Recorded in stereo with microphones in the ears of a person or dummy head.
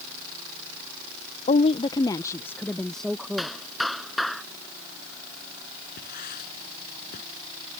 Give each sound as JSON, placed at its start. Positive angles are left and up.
{"t": 1.5, "sound": "a woman speaking", "side_deg": 35}
{"t": 3.4, "sound": "a clap", "side_deg": 0}
{"t": 6.0, "sound": "writing", "side_deg": 50}